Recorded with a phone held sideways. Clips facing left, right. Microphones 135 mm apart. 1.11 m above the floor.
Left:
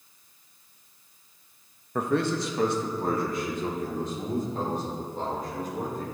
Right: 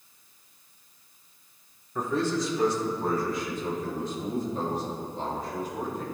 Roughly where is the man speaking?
Left.